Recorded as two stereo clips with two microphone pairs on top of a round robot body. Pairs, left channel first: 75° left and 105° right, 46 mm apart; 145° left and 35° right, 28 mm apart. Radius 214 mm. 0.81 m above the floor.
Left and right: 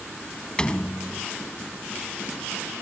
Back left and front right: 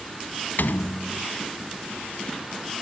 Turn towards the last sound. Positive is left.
turn(degrees=150)